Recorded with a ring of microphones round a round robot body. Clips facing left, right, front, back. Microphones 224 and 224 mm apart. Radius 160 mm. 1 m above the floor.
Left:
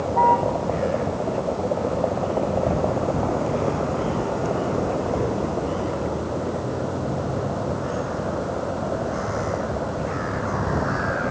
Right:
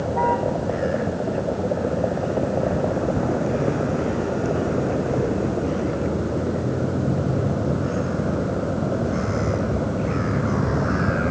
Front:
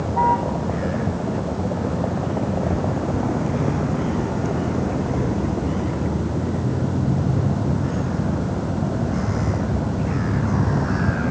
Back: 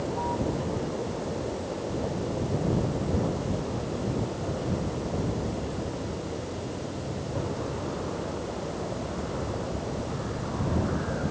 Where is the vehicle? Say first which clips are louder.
Even, front 6 dB; 15° right; by 11.3 s 35° right.